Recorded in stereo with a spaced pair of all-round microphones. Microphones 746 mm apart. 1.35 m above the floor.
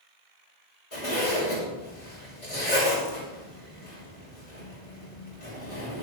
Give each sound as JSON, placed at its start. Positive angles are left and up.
{"t": 0.9, "sound": "a zipper", "side_deg": 45, "distance_m": 6.0}